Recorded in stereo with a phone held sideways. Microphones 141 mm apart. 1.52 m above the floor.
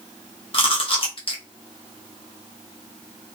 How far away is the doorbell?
I don't hear a doorbell.